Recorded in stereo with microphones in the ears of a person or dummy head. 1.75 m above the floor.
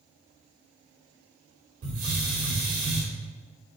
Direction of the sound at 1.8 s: 50° right (ahead or behind).